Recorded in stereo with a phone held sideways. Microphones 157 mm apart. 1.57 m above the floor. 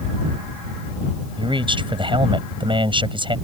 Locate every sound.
1.4 s a man speaking: 35° right (ahead or behind)